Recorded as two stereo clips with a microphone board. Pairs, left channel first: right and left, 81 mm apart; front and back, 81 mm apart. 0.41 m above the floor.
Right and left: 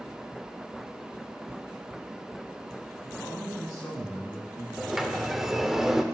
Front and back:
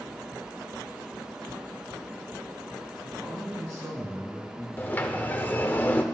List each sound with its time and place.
3.0 s a man speaking: 135° right, 4 m
4.8 s a sliding door: 10° left, 0.8 m